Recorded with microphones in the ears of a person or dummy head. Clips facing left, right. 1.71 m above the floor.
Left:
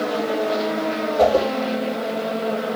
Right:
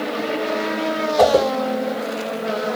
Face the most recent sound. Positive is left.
turn(degrees=-70)  # may be behind; listen again after turning